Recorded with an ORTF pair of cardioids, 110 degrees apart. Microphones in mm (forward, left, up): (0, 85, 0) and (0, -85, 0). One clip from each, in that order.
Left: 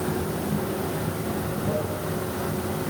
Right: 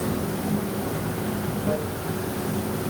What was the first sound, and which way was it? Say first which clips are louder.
Running water: even; 40° right.